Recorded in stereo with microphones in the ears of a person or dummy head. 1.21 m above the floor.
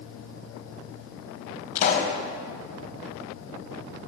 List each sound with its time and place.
1.8 s a pop: 45° left (ahead or behind), 4.5 m